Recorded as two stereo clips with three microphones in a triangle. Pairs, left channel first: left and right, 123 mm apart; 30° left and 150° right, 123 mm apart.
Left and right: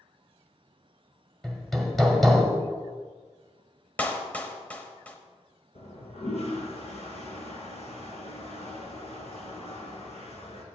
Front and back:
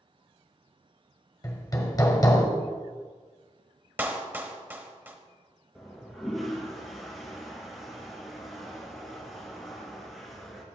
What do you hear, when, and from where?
1.4 s hammering: straight ahead, 1.3 m
4.0 s a clap: 155° left, 1.0 m
5.8 s a toilet flushing: 120° left, 2 m